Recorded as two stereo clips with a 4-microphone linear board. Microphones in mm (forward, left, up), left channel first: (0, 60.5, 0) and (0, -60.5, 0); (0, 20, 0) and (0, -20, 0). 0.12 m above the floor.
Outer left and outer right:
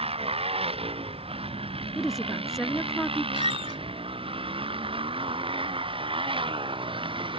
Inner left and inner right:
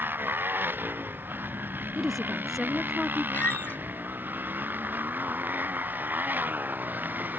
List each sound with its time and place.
0.0 s a motorcycle: 55° right (ahead or behind); by 7.4 s 45° right (ahead or behind)
1.9 s a woman speaking: centre (ahead or behind)
3.3 s a squeak: 55° left (ahead or behind)